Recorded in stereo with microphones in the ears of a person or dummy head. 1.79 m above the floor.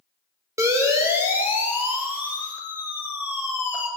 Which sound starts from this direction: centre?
A siren, at 0.6 s.